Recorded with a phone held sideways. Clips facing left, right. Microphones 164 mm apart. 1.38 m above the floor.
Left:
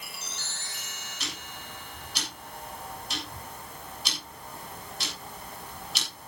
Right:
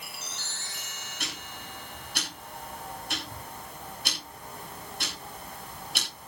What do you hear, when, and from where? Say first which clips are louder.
1.2 s ticking: right 1 dB; 55° right (ahead or behind), 7 m